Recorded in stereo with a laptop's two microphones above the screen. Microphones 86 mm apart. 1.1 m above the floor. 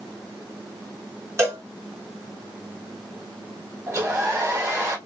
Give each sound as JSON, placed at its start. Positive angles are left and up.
{"t": 1.4, "sound": "a cowbell", "side_deg": -30, "distance_m": 2.0}
{"t": 3.9, "sound": "a hair dryer", "side_deg": -35, "distance_m": 3.0}